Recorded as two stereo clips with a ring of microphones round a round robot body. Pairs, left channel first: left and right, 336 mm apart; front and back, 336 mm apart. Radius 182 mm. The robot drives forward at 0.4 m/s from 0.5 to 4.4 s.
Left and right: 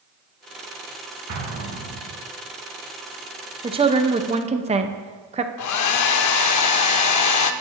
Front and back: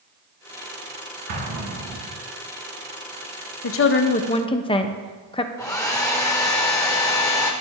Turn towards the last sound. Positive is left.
turn(degrees=80)